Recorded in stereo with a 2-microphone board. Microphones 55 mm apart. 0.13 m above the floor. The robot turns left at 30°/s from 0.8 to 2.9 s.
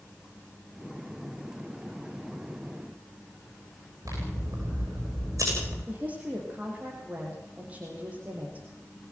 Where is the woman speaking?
25° right (ahead or behind), 5 m.